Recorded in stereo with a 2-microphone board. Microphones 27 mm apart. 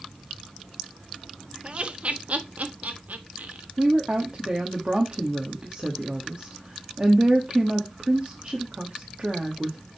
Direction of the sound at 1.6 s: 40° right (ahead or behind).